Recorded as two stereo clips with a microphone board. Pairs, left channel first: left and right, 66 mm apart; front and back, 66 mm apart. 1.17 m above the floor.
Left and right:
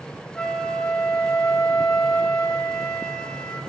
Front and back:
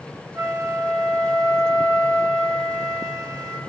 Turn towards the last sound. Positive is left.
turn(degrees=170)